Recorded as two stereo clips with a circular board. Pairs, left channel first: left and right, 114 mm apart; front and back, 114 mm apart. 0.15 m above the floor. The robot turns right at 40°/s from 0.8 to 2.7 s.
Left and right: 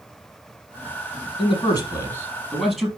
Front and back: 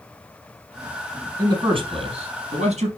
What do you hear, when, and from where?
1.4 s a man speaking: 125° left, 4.5 m; by 2.9 s straight behind, 4.5 m